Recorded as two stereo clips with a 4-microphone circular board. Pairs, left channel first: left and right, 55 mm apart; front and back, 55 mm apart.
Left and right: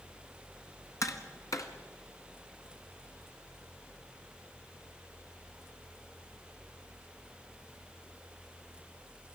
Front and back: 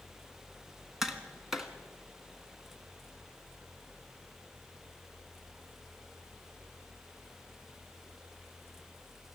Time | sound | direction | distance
1.0 | tapping | 95° left | 1.8 m